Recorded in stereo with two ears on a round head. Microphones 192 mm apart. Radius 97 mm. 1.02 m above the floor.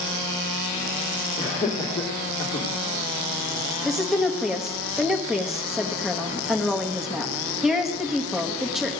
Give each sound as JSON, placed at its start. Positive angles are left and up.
{"t": 1.4, "sound": "laughter", "side_deg": 20, "distance_m": 2.5}
{"t": 3.9, "sound": "a woman speaking", "side_deg": 0, "distance_m": 1.3}